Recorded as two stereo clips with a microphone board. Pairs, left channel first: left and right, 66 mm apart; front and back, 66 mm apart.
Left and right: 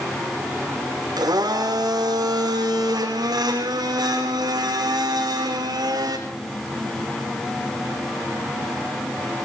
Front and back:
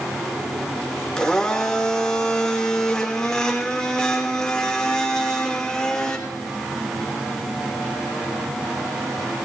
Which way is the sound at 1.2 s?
80° right.